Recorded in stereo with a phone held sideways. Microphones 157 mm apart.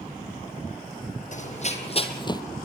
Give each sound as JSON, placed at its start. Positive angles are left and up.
{"t": 1.3, "sound": "running footsteps", "side_deg": 50, "distance_m": 2.0}